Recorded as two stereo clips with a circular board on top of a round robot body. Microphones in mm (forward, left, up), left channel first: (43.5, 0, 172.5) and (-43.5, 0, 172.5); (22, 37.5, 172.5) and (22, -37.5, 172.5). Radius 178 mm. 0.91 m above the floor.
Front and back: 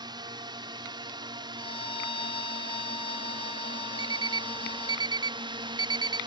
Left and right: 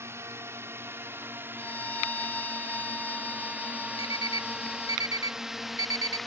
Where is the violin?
20° left.